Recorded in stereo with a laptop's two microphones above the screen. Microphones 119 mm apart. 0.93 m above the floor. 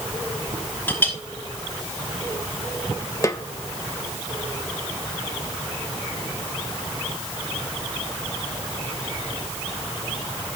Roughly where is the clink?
Centre.